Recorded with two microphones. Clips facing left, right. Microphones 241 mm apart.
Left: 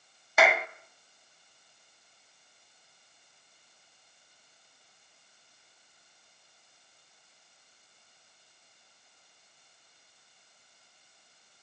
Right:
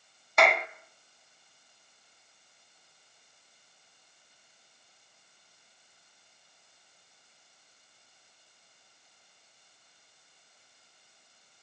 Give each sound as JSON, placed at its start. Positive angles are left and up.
{"t": 0.4, "sound": "a clap", "side_deg": 5, "distance_m": 0.7}